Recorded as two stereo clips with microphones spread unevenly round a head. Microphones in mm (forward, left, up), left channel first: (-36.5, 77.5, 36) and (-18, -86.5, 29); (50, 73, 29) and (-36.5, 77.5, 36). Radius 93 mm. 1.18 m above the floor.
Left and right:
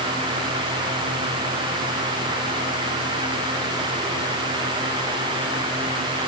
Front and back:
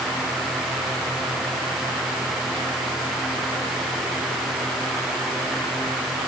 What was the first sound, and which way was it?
Only background noise.